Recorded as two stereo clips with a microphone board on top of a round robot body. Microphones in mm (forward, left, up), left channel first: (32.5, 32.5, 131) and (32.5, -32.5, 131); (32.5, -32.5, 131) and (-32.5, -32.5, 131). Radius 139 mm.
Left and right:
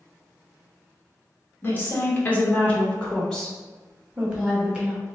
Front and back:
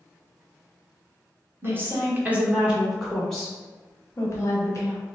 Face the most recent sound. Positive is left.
turn(degrees=-20)